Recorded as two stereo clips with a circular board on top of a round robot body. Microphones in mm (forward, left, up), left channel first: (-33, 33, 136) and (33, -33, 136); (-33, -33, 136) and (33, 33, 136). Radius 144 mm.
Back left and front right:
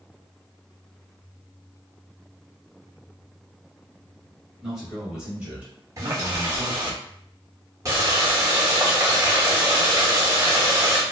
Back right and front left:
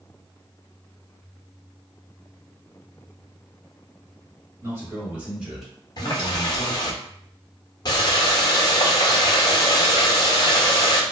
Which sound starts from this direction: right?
A running tap, at 6.0 s.